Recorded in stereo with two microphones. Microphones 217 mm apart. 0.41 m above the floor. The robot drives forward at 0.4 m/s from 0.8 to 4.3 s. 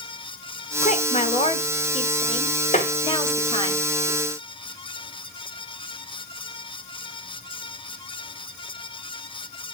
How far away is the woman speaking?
About 1.4 m.